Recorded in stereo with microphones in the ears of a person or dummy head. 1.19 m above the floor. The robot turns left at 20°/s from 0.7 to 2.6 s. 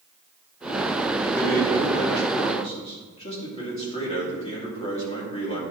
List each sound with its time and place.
1.4 s a man speaking: 10° left (ahead or behind), 2.5 m; by 5.6 s 35° left (ahead or behind), 2.5 m